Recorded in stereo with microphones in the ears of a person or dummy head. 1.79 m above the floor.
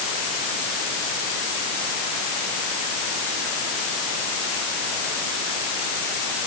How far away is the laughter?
No laughter in this recording.